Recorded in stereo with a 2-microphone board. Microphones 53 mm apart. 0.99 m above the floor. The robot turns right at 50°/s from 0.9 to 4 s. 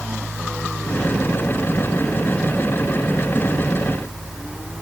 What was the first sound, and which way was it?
Only background noise.